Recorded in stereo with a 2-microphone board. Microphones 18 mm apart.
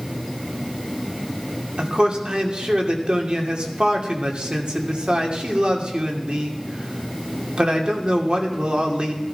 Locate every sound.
1.8 s a man speaking: 70° right (ahead or behind), 2.5 m